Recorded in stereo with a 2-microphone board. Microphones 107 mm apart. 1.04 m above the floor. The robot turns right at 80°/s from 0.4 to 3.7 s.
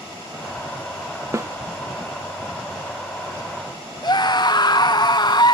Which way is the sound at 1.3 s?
30° right (ahead or behind).